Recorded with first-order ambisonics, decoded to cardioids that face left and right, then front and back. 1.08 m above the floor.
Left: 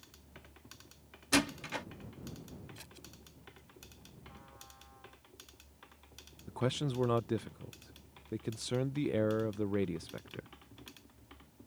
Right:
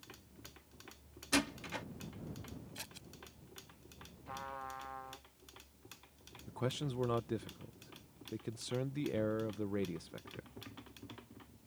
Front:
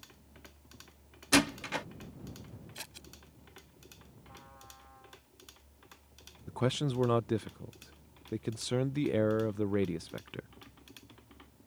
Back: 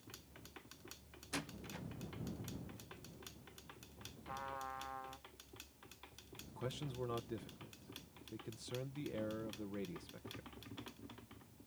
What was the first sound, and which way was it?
A door slam, 15° left.